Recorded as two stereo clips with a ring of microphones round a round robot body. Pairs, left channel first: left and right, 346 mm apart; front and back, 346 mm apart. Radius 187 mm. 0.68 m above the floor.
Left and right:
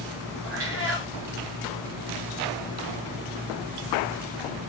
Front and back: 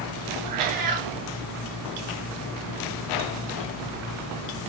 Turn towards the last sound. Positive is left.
turn(degrees=-150)